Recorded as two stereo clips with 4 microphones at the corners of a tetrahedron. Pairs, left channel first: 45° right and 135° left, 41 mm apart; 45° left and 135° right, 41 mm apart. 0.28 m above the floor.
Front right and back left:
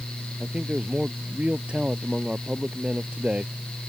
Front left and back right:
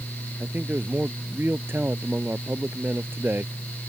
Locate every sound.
0.4 s a man speaking: 165° right